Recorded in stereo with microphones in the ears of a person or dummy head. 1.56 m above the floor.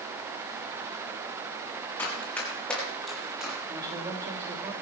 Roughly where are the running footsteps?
Centre.